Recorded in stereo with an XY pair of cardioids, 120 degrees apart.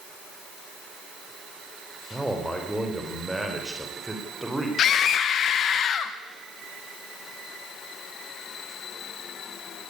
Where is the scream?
55° left, 1.0 m.